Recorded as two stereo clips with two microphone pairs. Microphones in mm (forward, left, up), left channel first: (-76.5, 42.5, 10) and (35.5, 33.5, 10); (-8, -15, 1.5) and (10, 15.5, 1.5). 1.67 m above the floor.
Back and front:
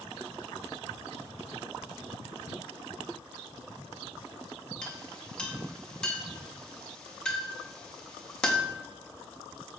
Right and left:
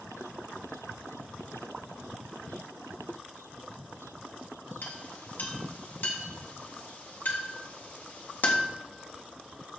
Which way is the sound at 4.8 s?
105° right.